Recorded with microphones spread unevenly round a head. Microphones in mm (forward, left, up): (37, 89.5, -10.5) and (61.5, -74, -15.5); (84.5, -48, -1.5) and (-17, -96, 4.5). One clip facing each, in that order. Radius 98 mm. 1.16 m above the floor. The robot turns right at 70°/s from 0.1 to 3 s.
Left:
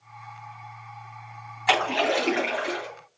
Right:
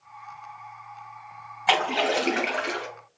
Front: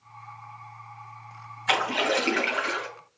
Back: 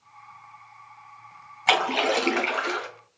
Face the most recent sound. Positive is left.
turn(degrees=-85)